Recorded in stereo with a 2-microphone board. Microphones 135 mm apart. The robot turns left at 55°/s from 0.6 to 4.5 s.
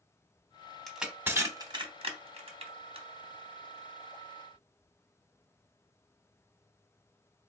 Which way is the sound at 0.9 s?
Centre (ahead or behind).